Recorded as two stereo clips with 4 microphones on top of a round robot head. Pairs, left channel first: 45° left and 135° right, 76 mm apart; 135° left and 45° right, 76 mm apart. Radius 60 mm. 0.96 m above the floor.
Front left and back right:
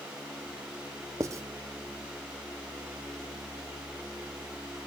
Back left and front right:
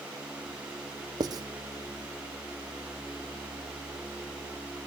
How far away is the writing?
About 0.8 m.